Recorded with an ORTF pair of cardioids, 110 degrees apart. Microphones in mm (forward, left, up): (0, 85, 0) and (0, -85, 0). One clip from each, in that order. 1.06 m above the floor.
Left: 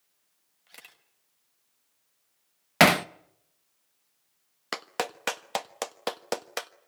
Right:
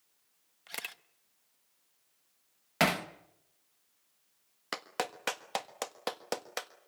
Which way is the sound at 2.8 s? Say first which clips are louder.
Left 9 dB; 45° left.